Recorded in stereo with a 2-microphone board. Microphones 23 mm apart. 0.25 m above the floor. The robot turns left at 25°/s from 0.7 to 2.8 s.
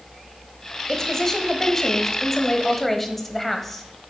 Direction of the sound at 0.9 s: 25° left (ahead or behind).